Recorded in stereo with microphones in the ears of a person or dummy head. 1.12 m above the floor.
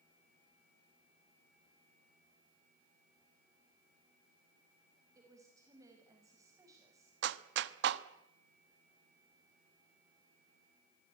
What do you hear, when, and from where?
5.2 s a woman speaking: 10° right (ahead or behind), 5.5 m
7.2 s a clap: 70° right (ahead or behind), 1.0 m